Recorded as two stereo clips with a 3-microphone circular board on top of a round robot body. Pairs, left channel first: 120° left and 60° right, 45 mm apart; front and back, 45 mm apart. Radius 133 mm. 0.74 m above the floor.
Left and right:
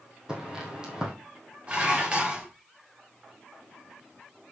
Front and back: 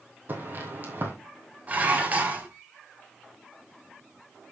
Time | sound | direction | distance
0.3 | footsteps | 135° right | 2.5 m
1.7 | dishes clattering | 125° right | 3 m